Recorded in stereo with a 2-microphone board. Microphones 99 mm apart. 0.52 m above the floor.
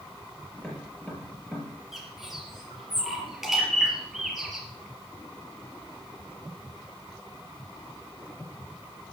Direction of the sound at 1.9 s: Centre (ahead or behind).